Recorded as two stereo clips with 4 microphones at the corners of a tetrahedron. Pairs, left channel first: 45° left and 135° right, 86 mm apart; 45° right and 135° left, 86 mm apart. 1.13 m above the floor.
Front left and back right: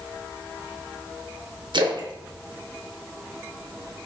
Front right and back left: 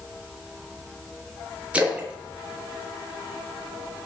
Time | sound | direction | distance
1.7 | a splash | 150° right | 0.6 m